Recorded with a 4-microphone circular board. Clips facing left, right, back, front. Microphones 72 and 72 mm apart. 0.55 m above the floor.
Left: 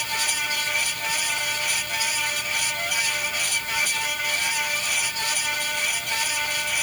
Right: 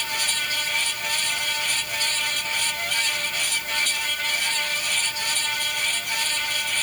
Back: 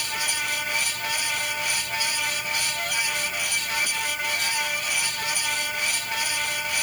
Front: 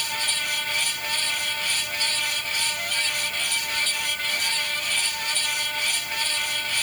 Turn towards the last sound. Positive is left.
No sound to turn to.